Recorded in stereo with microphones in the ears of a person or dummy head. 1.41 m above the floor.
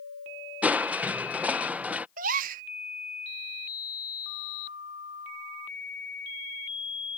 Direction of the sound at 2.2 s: 50° right (ahead or behind).